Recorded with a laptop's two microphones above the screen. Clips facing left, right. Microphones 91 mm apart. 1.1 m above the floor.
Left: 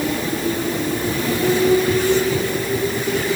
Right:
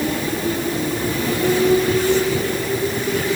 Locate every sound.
Only background noise.